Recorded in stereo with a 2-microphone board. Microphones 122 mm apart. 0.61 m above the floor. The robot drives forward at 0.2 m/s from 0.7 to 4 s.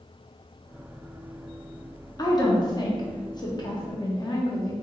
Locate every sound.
2.2 s a woman speaking: 35° left (ahead or behind), 0.7 m